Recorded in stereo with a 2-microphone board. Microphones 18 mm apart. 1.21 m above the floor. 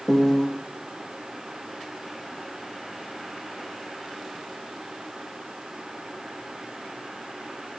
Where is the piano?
30° left (ahead or behind), 0.8 m.